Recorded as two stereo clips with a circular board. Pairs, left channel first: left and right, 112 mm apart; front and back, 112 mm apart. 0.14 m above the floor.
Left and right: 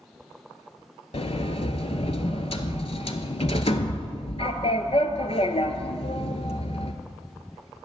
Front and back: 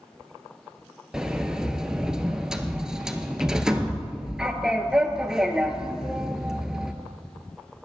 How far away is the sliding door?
About 0.6 m.